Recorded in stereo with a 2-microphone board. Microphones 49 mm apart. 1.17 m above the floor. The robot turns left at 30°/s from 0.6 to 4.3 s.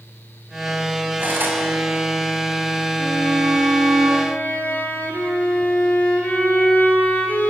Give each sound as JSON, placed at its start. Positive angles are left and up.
{"t": 1.2, "sound": "cutlery clinking", "side_deg": -35, "distance_m": 5.5}
{"t": 3.0, "sound": "a violin", "azimuth_deg": -175, "distance_m": 5.0}